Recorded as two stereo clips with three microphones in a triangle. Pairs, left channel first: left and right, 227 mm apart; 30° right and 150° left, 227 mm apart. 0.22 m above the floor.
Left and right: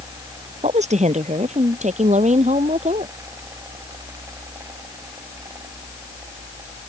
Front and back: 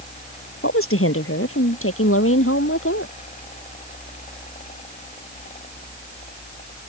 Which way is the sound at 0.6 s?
30° right.